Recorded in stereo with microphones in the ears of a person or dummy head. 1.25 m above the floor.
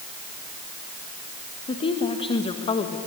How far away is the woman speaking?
About 1.4 m.